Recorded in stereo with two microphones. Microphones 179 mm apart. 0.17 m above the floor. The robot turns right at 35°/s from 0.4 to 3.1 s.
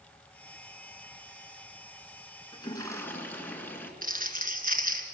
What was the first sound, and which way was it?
A toilet flushing, 25° left (ahead or behind).